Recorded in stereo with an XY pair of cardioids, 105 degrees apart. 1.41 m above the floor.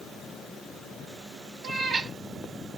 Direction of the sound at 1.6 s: 55° right.